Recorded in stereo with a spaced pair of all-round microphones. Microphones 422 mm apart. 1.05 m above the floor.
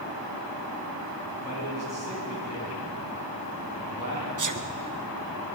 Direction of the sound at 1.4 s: 35° left (ahead or behind).